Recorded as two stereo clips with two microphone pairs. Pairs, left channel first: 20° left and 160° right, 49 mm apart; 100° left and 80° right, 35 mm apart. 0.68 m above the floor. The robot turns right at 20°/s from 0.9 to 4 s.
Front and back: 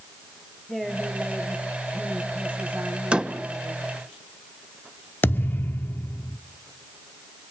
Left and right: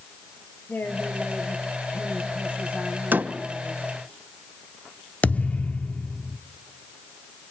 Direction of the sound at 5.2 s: 60° left.